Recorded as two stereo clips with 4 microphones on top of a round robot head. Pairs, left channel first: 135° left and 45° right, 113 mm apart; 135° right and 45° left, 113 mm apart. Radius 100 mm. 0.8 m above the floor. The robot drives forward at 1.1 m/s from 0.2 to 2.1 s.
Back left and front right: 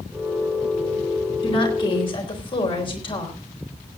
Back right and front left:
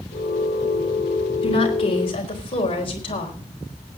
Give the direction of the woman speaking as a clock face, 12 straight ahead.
6 o'clock.